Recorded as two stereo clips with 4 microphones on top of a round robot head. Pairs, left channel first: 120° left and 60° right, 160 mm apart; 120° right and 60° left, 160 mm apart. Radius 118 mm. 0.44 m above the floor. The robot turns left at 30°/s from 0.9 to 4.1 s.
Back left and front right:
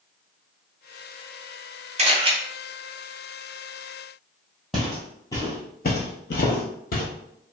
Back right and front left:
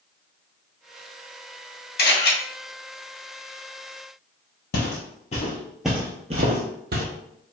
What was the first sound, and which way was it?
A camera shutter, 105° right.